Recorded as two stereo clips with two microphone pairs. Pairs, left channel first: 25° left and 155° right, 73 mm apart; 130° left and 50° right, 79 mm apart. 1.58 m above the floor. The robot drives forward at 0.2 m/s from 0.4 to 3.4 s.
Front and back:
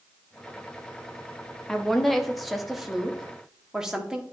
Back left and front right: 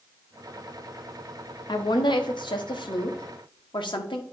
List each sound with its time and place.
1.7 s a woman speaking: 110° left, 1.1 m; by 4.2 s 125° left, 1.3 m